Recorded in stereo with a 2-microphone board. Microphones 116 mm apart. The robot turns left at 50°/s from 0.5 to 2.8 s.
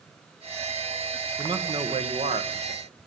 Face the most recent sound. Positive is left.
turn(degrees=-100)